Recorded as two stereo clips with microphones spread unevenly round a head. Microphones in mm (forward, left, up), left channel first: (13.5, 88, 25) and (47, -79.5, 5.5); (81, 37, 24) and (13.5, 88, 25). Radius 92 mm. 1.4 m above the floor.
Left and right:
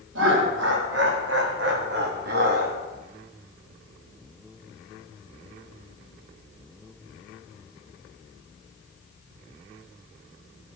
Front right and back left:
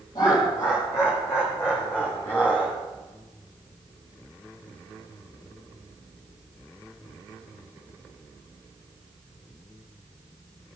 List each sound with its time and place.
0.1 s laughter: 100° right, 4 m; by 2.8 s 120° right, 3 m